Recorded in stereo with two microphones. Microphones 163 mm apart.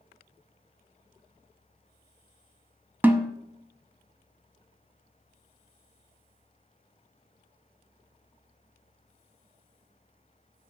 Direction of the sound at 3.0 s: 10° right (ahead or behind).